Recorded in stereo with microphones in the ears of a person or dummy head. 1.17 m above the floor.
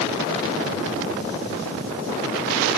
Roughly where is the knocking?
I don't hear knocking.